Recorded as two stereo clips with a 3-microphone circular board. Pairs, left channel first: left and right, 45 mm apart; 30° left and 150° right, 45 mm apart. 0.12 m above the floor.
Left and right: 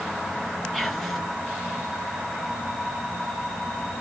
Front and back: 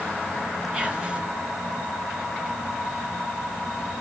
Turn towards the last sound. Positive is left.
turn(degrees=170)